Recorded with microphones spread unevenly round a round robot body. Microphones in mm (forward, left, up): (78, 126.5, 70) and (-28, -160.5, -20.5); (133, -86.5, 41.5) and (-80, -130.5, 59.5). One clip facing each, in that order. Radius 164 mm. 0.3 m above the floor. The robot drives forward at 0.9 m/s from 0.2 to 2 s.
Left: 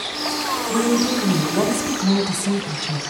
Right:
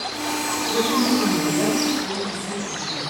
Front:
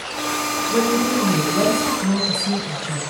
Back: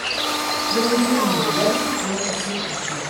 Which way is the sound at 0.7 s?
55° left.